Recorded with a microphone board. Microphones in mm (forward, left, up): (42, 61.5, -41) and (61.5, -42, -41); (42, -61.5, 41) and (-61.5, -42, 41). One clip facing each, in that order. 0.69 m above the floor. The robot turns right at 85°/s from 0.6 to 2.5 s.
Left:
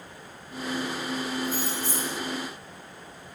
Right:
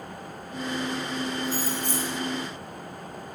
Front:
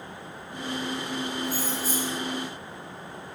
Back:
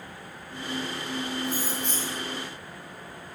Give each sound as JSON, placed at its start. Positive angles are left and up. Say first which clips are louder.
{"t": 1.4, "sound": "keys jangling", "louder": "right 1 dB, front 1 dB", "azimuth_deg": -130, "distance_m": 1.1}